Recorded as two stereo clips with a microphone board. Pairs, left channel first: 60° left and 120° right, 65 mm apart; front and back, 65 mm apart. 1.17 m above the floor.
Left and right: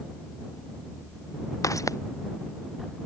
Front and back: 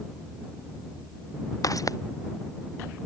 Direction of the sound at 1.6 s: 30° left.